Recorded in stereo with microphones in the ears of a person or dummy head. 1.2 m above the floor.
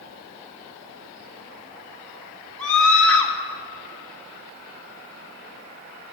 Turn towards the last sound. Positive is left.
turn(degrees=10)  # may be behind; listen again after turning